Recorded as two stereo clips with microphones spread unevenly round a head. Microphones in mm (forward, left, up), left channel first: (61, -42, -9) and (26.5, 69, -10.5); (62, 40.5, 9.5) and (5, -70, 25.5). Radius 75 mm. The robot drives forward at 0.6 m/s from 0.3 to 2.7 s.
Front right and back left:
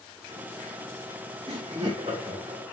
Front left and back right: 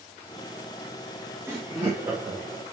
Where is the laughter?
165° left, 0.6 m; by 2.6 s 175° left, 1.2 m.